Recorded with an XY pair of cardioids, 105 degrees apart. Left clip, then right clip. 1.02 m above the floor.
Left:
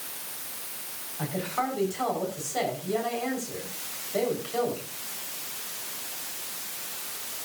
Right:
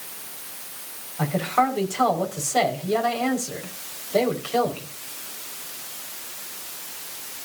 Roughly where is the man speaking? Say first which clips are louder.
Right 8 dB; ahead right.